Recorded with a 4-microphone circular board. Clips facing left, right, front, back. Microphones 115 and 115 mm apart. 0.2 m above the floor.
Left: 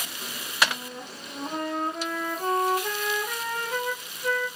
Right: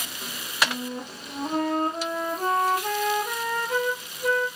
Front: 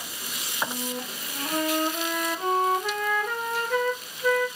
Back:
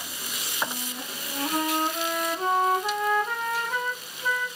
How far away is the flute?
About 1.3 m.